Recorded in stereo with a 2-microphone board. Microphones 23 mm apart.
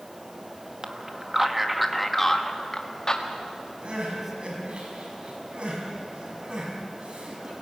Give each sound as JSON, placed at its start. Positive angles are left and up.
{"t": 0.8, "sound": "a man speaking", "side_deg": -30, "distance_m": 1.7}
{"t": 3.8, "sound": "crying", "side_deg": -55, "distance_m": 5.0}